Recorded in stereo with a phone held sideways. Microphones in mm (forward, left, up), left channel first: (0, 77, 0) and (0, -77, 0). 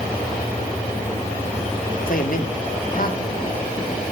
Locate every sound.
2.1 s a man speaking: 65° left (ahead or behind), 1.7 m